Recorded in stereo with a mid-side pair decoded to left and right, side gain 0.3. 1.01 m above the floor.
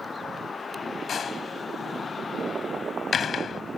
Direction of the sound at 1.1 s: 65° left.